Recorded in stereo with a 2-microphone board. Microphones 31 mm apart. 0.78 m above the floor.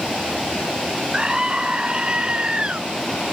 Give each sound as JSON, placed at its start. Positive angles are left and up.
{"t": 1.1, "sound": "a scream", "side_deg": -25}